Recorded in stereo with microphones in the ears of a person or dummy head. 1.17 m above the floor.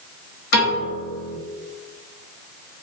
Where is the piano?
60° left (ahead or behind), 1.2 m.